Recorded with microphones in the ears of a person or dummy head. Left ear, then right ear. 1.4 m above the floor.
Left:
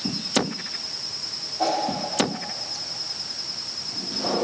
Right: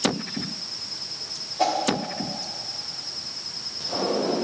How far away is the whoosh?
About 1.2 m.